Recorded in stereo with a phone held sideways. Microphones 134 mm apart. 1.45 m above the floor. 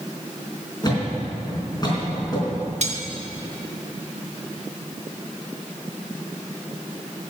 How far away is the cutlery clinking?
About 1.2 m.